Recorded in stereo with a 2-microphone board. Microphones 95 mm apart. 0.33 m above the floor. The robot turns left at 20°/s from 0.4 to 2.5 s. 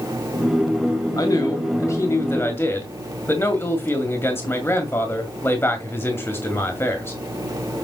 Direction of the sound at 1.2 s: 40° left (ahead or behind).